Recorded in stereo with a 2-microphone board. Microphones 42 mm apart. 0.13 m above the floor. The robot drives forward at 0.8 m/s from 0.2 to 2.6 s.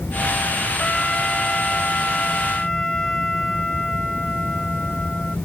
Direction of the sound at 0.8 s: 15° left (ahead or behind).